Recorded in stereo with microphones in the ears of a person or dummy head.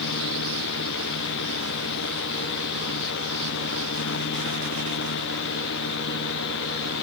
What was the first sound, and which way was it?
A fan, 60° left (ahead or behind).